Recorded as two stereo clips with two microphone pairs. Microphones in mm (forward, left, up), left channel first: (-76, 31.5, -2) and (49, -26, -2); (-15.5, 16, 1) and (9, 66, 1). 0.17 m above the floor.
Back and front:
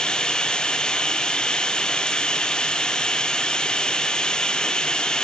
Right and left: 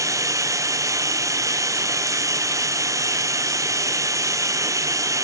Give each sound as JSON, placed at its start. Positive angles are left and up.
{"t": 0.0, "sound": "running water", "azimuth_deg": 70, "distance_m": 0.9}